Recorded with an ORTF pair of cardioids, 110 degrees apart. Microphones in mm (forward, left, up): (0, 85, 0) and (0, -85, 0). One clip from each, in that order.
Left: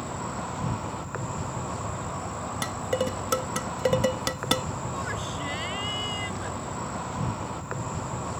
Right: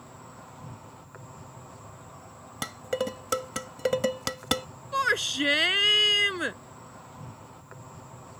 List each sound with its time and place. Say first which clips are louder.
0.0 s an insect: left 14 dB; 65° left
2.6 s dishes clattering: left 2 dB; 5° left
4.9 s a shout: right 11 dB; 65° right